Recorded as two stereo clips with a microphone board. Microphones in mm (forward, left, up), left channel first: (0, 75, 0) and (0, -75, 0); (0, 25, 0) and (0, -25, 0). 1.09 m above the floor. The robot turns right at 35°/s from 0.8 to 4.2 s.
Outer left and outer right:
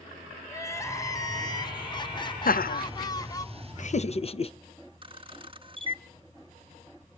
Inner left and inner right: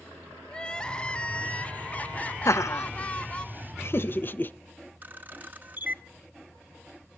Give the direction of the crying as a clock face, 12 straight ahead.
11 o'clock.